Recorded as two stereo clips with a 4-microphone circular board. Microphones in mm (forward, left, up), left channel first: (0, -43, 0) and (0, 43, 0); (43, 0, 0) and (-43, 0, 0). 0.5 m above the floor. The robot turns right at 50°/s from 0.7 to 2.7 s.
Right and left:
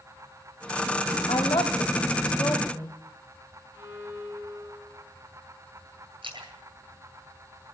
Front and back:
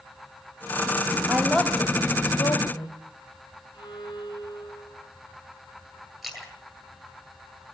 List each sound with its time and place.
1.3 s a woman speaking: 100° right, 2.5 m; by 3.0 s 25° right, 2.5 m
3.7 s a violin: 30° left, 7 m
6.2 s a splash: 90° left, 9 m